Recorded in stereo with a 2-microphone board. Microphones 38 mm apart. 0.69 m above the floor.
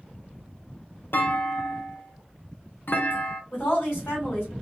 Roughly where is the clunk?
Left.